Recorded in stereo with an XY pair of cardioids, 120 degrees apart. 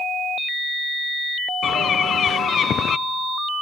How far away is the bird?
About 0.6 m.